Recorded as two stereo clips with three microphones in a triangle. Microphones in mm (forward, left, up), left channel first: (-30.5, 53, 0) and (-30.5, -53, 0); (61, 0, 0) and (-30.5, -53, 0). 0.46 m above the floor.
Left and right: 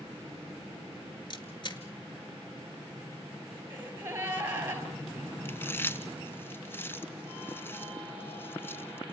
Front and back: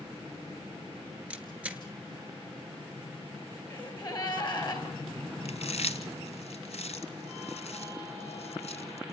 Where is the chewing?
20° left, 1.7 m.